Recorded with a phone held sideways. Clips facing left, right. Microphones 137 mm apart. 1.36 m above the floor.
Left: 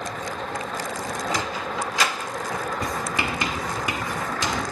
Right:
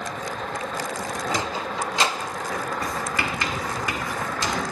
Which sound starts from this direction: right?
A sliding door, at 1.3 s.